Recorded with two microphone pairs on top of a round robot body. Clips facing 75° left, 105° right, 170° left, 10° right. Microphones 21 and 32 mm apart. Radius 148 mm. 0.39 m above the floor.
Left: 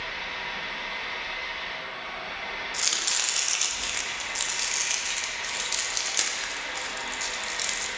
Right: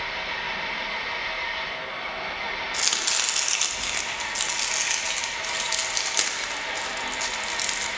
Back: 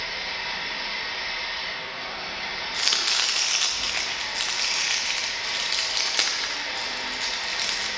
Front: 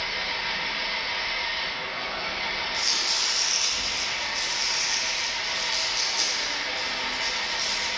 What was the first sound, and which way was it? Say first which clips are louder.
An engine running: right 3 dB, front 2 dB; 85° right.